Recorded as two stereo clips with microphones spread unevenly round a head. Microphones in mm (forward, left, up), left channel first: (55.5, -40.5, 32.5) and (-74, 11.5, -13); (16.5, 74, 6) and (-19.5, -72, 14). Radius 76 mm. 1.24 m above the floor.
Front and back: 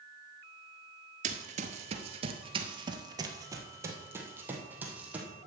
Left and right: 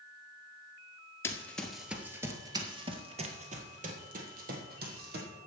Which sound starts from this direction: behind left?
Running footsteps, at 1.2 s.